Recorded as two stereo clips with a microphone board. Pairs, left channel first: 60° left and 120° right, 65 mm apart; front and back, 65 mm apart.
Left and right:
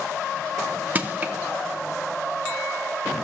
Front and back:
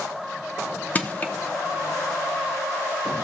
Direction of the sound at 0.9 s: 60° right.